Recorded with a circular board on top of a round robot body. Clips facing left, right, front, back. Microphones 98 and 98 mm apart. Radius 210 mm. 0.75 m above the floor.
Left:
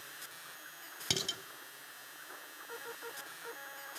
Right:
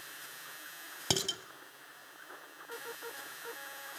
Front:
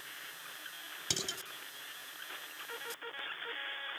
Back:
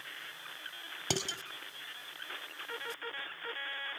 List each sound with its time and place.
1.1 s dishes clattering: 145° right, 2.5 m